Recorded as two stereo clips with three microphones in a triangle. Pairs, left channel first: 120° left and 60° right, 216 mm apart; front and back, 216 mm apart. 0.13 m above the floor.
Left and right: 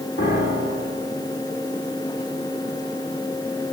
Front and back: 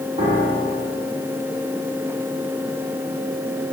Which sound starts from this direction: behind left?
A piano, at 0.2 s.